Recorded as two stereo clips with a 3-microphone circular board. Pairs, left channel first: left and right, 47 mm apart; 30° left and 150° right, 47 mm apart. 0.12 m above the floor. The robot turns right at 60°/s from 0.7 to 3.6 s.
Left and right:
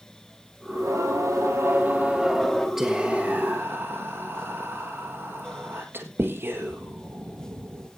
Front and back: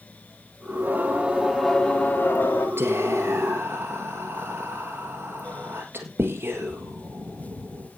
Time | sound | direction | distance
0.7 | singing | 110° right | 3.5 m
2.8 | whispering | 170° right | 1.8 m